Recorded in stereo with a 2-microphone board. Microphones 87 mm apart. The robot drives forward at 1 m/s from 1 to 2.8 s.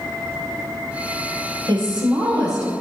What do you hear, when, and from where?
1.7 s a woman speaking: 55° right (ahead or behind), 3 m; by 2.7 s 45° right (ahead or behind), 3.5 m